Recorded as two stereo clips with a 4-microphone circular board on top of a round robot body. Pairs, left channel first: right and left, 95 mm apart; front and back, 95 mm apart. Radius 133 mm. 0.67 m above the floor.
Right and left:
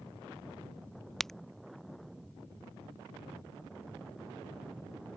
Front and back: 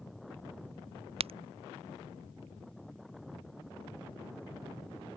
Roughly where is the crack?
Behind.